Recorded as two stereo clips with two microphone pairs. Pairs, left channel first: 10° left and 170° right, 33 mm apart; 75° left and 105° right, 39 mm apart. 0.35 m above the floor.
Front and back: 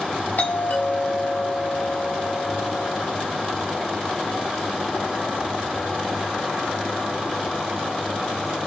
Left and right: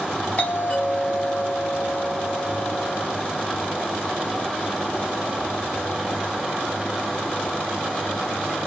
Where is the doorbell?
30° left, 3.5 m.